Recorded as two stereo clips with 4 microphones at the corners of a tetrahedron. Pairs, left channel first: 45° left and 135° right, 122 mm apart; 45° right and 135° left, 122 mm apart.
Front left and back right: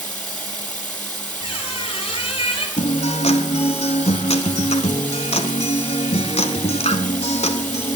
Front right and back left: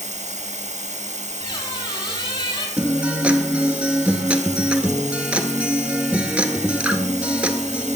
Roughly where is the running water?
Behind left.